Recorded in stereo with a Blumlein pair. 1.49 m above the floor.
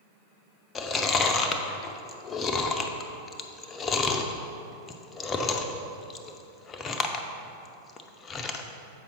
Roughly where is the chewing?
Ahead.